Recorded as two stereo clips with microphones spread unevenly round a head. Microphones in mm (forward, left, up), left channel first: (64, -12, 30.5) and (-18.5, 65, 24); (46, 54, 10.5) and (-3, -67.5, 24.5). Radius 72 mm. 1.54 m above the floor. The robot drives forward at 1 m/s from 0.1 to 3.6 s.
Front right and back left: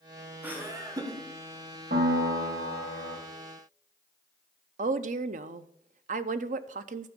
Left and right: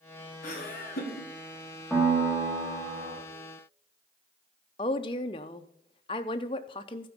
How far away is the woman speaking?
About 0.6 m.